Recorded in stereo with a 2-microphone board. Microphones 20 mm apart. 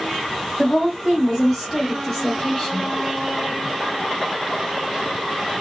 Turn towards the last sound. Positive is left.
turn(degrees=30)  # may be behind; listen again after turning